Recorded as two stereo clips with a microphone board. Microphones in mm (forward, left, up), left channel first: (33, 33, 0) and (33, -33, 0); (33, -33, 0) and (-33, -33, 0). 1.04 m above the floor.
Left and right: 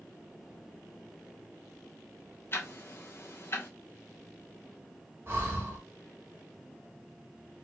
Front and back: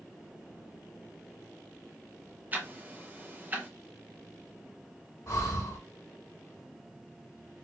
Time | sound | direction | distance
2.5 | ticking | 125° left | 0.9 m
5.3 | breathing | 40° right | 1.9 m